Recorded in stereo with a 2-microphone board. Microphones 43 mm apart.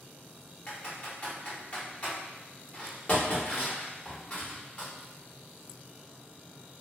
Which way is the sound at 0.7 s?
30° left (ahead or behind).